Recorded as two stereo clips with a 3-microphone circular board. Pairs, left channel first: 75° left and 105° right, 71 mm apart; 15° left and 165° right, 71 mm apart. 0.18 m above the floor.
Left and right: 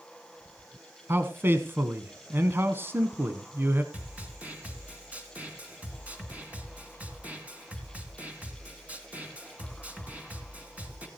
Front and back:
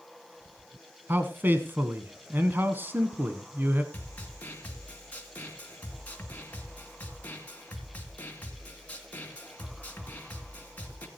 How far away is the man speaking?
About 1.2 m.